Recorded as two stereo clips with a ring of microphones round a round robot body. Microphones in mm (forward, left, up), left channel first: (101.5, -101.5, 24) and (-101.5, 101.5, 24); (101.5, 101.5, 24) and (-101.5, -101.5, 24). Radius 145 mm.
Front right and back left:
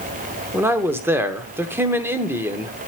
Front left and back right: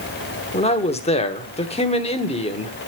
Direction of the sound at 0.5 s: 65° left.